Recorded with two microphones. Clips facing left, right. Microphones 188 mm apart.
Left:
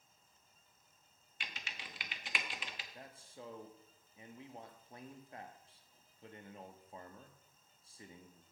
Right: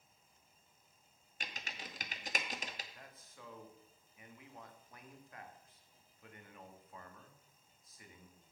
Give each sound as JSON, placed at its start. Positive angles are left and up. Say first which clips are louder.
{"t": 1.4, "sound": "typing on a keyboard", "louder": "right 3 dB", "side_deg": -45, "distance_m": 0.9}
{"t": 2.9, "sound": "a man speaking", "louder": "left 5 dB", "side_deg": 30, "distance_m": 1.2}